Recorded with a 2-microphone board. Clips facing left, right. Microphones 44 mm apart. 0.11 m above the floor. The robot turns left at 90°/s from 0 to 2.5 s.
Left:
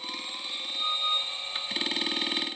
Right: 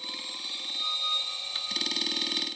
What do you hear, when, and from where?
Only background noise.